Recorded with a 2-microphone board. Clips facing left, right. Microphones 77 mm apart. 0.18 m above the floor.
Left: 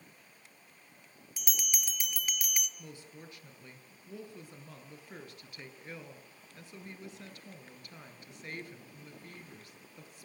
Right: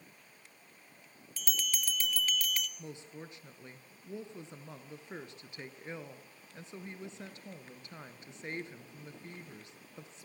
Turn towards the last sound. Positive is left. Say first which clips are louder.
# right 3 dB
turn(degrees=-25)  # may be behind; listen again after turning